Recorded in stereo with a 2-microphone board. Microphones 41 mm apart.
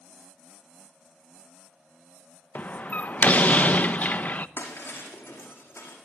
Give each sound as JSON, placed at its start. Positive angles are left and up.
{"t": 2.5, "sound": "a door slam", "side_deg": 45, "distance_m": 0.8}
{"t": 4.6, "sound": "breaking glass", "side_deg": 75, "distance_m": 5.0}